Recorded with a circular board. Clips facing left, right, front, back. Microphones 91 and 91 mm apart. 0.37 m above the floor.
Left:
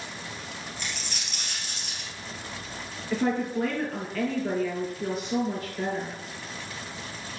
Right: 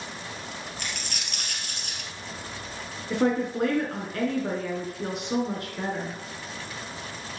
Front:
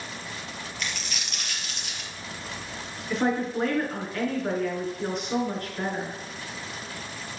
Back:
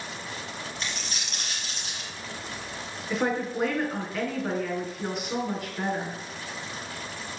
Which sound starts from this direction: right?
A woman speaking, at 3.1 s.